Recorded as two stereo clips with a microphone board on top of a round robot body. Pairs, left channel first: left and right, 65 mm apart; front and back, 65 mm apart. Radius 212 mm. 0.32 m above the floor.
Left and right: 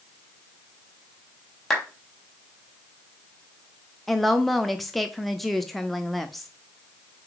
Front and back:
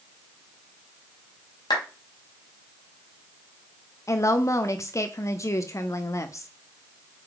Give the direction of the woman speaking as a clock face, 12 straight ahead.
12 o'clock.